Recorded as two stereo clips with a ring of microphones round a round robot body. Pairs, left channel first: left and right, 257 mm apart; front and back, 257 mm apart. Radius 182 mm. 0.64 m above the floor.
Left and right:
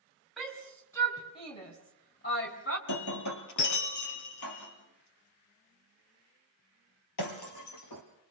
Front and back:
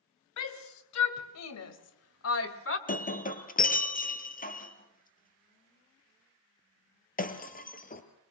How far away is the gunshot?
I don't hear a gunshot.